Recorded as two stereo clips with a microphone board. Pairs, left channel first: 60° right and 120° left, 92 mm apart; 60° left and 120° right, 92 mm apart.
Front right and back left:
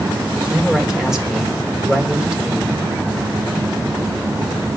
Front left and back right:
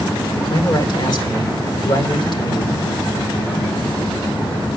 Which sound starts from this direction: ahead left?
A man speaking, at 0.3 s.